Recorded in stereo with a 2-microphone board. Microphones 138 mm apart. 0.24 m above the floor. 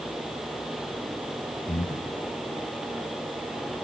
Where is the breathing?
60° left (ahead or behind), 3.5 m.